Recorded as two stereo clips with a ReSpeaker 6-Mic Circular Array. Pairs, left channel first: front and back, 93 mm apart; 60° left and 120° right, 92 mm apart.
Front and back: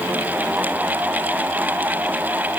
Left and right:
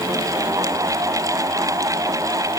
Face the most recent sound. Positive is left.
No sound to turn to.